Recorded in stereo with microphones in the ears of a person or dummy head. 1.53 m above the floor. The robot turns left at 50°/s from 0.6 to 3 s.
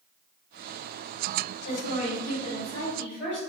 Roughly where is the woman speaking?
Left.